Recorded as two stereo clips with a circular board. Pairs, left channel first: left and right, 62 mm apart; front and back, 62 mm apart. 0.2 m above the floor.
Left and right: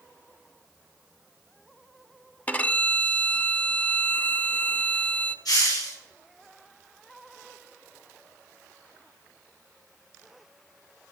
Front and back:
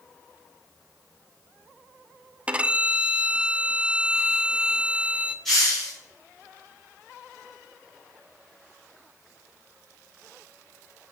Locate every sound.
2.5 s a violin: 130° left, 0.6 m
5.5 s a hiss: 85° left, 6 m